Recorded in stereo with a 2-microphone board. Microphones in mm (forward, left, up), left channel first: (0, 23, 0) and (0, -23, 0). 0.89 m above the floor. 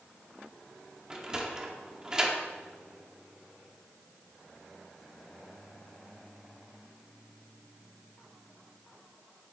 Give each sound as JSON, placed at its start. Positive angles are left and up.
{"t": 1.1, "sound": "a sliding door", "side_deg": -15, "distance_m": 2.0}